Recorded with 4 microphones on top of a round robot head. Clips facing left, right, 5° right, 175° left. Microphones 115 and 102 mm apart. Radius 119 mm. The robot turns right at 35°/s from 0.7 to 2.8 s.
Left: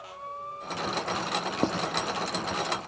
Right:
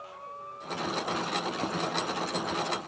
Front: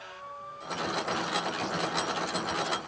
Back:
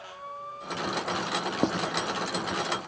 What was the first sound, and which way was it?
Writing, 145° left.